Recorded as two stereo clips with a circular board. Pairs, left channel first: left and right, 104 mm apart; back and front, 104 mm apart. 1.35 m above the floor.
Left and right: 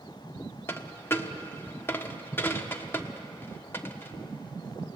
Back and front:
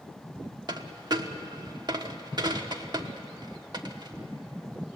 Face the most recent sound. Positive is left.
turn(degrees=30)